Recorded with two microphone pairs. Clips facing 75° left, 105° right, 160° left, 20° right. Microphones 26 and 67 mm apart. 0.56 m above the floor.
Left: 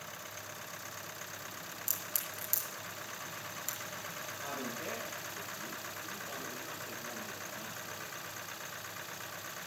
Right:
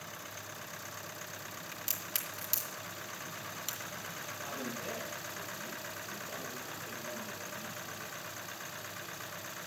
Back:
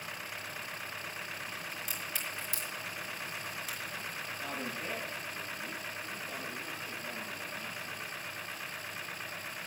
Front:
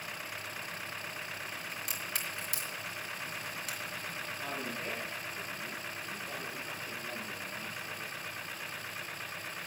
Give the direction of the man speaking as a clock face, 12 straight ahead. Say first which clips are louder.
Even, even; 11 o'clock.